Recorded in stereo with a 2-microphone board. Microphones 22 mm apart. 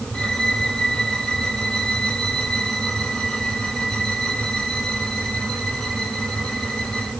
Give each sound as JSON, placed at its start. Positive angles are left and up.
{"t": 0.1, "sound": "a violin", "side_deg": 30, "distance_m": 7.0}